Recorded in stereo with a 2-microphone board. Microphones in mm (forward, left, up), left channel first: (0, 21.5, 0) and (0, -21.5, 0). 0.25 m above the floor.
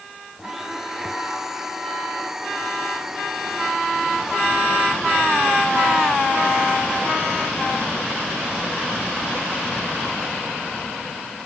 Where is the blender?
10° right (ahead or behind).